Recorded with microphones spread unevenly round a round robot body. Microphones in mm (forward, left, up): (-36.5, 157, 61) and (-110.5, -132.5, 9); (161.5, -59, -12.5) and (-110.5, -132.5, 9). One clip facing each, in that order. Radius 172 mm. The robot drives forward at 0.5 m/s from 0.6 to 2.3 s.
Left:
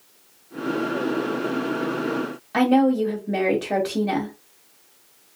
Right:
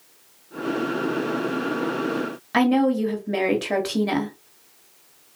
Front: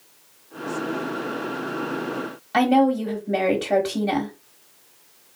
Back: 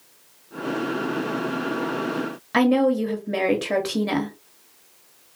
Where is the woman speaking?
105° right, 1.1 m.